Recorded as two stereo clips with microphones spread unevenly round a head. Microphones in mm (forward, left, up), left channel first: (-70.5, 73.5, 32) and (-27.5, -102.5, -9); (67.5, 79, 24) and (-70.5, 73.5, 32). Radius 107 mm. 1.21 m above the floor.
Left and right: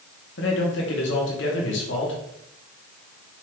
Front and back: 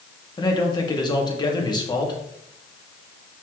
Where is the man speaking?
60° left, 2 m.